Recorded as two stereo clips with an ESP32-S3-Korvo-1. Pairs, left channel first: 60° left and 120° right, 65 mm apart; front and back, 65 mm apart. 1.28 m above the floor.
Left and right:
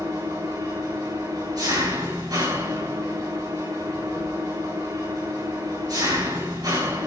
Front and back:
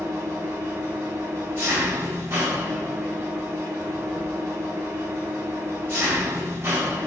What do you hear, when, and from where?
0.0 s an engine running: 125° right, 4.5 m